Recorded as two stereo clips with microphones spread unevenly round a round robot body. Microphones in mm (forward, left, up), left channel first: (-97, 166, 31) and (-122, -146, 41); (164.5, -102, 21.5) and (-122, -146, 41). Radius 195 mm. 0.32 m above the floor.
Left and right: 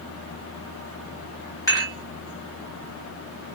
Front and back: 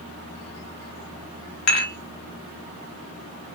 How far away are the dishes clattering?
About 1.5 m.